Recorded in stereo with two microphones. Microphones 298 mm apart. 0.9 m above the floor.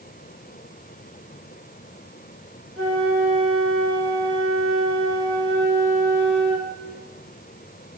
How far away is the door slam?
I don't hear a door slam.